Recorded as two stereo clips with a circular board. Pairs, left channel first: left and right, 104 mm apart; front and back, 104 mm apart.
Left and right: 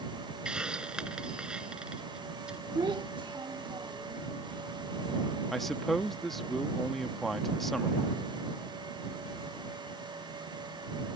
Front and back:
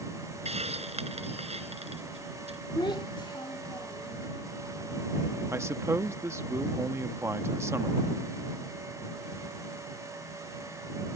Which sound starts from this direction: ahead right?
A child speaking, at 2.8 s.